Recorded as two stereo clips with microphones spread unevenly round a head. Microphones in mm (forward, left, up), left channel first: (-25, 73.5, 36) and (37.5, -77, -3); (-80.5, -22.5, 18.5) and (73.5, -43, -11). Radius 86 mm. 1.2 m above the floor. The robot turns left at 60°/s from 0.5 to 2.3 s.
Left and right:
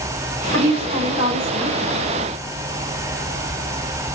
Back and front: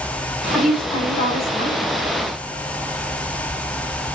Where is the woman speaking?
90° right, 3 m; by 1.8 s 165° right, 3 m.